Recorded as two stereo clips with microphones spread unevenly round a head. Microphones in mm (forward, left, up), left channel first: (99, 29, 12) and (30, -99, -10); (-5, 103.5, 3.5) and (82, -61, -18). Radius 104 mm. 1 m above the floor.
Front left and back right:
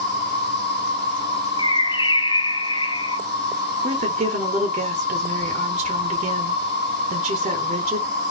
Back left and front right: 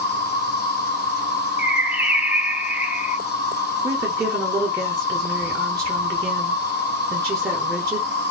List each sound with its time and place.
0.0 s an insect: 80° left, 1.8 m
1.6 s a bird: 10° left, 0.6 m
3.8 s a woman speaking: 130° right, 1.1 m